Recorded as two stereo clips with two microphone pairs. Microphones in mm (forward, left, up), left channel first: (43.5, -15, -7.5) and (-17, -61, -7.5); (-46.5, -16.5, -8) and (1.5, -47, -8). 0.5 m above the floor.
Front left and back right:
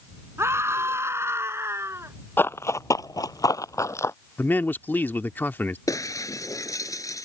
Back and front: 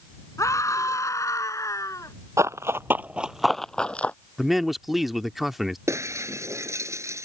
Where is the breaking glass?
5° right.